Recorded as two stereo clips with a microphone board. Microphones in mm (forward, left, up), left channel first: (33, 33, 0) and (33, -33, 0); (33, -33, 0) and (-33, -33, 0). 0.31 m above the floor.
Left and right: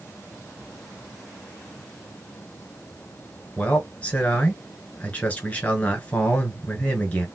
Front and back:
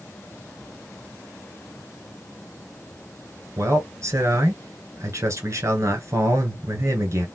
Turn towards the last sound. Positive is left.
turn(degrees=150)